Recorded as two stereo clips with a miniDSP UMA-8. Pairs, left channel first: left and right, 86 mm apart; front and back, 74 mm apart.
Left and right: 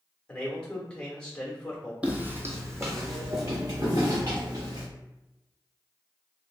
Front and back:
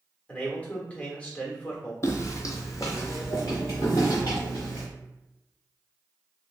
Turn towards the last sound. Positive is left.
turn(degrees=-50)